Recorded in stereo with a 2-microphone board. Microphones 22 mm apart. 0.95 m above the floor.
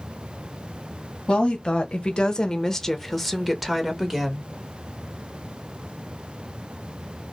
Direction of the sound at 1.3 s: 55° left (ahead or behind).